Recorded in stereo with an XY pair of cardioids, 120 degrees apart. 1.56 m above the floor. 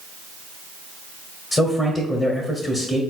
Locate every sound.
1.5 s a man speaking: 30° left, 0.9 m